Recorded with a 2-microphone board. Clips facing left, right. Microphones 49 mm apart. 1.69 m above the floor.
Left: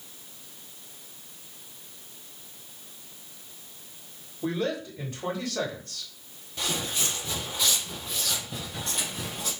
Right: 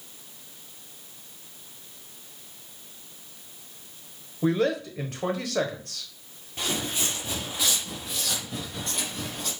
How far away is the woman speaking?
About 1.4 m.